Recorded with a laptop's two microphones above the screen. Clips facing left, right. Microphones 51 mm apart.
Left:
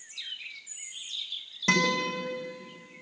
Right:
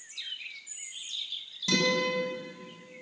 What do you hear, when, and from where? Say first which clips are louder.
1.7 s a guitar: left 1 dB; 50° left (ahead or behind), 6.5 m